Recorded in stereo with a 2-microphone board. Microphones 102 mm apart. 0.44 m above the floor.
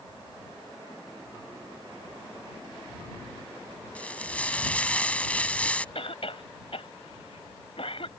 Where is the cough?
70° left (ahead or behind).